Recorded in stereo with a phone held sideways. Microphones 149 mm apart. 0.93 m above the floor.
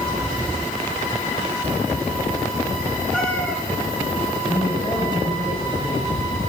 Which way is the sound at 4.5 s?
30° left (ahead or behind).